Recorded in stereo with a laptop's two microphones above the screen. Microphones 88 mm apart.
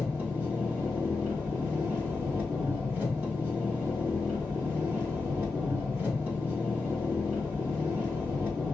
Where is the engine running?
20° right (ahead or behind), 1.4 m.